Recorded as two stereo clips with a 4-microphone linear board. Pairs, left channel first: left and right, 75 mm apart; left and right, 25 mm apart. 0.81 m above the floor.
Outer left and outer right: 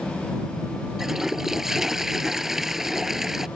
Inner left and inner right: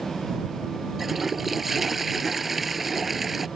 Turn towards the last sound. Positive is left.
turn(degrees=-5)  # may be behind; listen again after turning